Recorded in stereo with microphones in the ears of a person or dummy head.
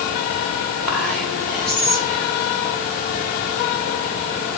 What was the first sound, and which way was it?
Whispering, 10° right (ahead or behind).